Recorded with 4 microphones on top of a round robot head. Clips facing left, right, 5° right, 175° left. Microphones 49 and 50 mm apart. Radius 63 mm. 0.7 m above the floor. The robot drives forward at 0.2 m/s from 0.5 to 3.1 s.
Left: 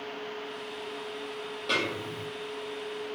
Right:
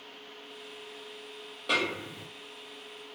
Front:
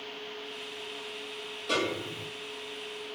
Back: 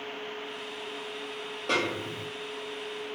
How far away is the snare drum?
About 1.4 m.